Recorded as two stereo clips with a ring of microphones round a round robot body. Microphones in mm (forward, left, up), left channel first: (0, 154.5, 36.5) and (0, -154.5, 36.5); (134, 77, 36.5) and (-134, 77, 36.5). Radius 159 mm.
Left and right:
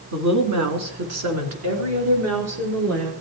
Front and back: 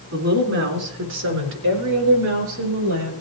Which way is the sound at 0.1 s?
125° right.